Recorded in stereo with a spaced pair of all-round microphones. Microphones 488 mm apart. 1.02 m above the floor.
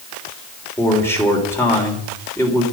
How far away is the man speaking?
About 3.5 m.